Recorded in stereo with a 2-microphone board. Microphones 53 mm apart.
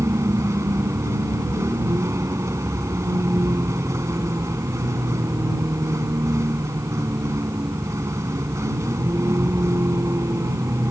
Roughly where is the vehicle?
Right.